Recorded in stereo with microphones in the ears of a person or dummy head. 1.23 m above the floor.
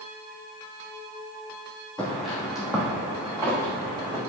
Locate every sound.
2.0 s footsteps: 5° left (ahead or behind), 2 m; by 4.2 s 20° right (ahead or behind), 3.5 m